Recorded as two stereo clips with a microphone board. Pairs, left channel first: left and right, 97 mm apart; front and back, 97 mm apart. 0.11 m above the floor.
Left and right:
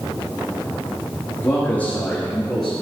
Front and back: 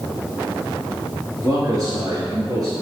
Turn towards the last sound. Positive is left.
turn(degrees=180)